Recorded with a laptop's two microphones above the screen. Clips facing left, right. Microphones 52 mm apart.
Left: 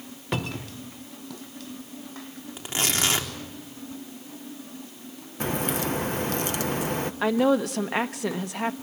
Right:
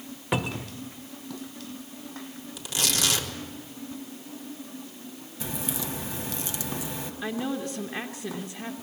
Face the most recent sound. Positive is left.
turn(degrees=80)